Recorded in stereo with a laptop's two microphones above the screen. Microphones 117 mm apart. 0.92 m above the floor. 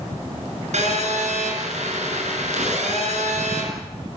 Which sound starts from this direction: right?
A phone buzzing, at 0.7 s.